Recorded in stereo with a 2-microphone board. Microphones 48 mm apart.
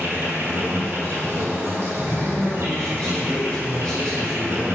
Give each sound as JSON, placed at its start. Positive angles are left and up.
{"t": 0.0, "sound": "an insect", "side_deg": -60, "distance_m": 2.5}
{"t": 2.0, "sound": "a man speaking", "side_deg": 15, "distance_m": 3.0}